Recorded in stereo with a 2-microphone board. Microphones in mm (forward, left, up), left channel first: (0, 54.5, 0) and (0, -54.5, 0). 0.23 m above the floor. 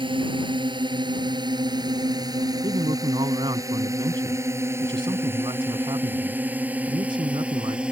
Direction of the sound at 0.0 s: 50° right (ahead or behind).